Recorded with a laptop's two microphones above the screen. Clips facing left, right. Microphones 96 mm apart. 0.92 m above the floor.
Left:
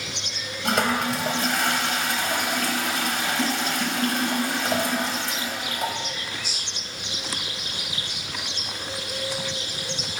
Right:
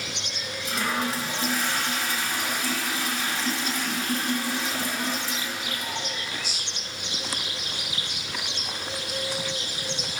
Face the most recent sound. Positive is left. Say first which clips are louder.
# left 5 dB
turn(degrees=65)  # may be behind; listen again after turning